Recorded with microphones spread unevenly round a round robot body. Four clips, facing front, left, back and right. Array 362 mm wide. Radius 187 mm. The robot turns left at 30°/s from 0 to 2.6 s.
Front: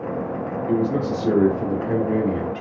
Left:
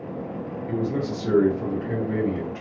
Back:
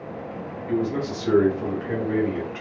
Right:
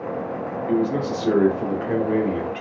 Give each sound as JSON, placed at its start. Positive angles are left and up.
{"t": 0.7, "sound": "a man speaking", "azimuth_deg": -20, "distance_m": 1.5}